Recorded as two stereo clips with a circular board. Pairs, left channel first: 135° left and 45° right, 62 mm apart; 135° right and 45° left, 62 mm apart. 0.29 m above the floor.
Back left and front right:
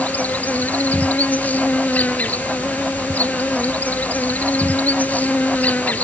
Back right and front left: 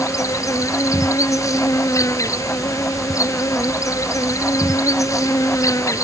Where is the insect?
160° right.